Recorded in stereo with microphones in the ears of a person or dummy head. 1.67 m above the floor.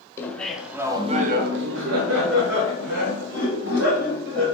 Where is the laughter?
10° left (ahead or behind), 0.8 m; by 4.5 s 60° right (ahead or behind), 2 m.